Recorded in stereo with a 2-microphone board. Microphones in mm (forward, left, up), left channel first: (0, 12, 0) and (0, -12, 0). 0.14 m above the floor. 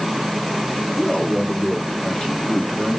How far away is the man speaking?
About 1.6 m.